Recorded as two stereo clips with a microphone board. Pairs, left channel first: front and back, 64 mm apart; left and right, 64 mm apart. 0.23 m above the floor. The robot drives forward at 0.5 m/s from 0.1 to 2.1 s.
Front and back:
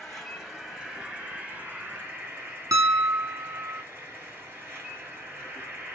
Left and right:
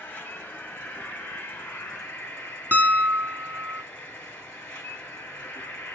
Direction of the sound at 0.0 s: 75° left.